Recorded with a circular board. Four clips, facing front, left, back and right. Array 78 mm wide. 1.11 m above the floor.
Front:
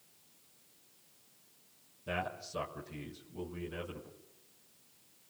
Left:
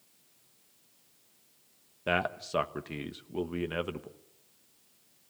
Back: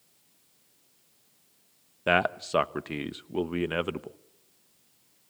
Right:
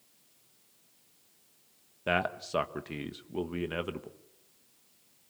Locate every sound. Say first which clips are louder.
2.1 s a man speaking: even, back 13 dB; straight behind, 1.2 m